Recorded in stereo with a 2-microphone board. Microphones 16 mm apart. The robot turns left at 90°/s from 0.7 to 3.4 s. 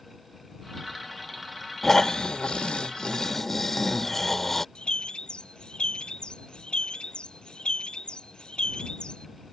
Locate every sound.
1.8 s snoring: 165° left; by 4.7 s 25° left
4.8 s a bird: 75° left (ahead or behind)